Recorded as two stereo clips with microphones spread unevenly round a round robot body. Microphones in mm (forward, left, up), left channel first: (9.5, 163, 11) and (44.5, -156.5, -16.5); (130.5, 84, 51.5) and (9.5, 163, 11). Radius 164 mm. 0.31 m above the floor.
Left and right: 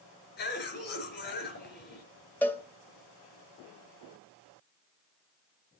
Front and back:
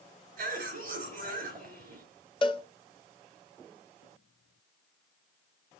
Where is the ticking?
I don't hear ticking.